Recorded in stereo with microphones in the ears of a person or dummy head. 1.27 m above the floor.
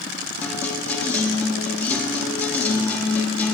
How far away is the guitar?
About 0.8 m.